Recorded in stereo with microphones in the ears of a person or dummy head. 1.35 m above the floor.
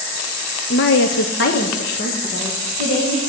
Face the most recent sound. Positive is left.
turn(degrees=40)  # may be behind; listen again after turning